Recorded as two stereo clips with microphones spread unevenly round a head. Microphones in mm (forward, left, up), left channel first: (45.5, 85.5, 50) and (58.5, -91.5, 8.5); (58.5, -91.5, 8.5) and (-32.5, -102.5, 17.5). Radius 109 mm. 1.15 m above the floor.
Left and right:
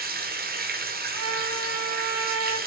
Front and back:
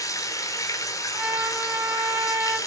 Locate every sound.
0.0 s running water: 50° right, 2.0 m
1.1 s a trumpet: 100° right, 3 m